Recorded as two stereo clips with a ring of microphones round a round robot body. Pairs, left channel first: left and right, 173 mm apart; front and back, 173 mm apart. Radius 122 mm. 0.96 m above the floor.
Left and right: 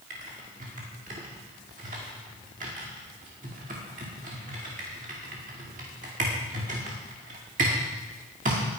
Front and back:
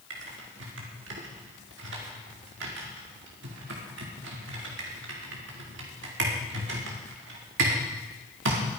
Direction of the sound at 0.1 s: 150° right.